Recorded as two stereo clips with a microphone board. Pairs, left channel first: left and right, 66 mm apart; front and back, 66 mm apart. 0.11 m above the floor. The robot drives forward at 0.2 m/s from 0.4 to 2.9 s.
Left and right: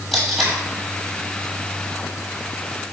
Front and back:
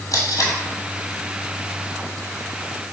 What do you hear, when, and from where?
0.1 s tape being pulled: 5° right, 1.1 m